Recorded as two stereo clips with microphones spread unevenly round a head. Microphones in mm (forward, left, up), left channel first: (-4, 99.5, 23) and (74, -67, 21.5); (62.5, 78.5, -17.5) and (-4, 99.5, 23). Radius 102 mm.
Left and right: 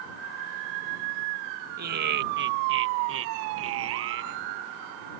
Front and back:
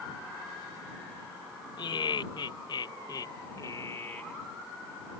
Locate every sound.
1.8 s laughter: 30° right; by 4.4 s 105° right